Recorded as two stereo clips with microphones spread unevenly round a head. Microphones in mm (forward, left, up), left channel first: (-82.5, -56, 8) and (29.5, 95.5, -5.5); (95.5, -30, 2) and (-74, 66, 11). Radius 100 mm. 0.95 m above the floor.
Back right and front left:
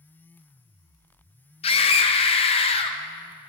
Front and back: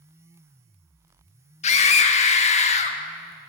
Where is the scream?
70° right, 0.9 m.